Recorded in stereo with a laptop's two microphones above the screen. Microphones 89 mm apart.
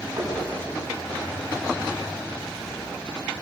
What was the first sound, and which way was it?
Knocking, 40° right (ahead or behind).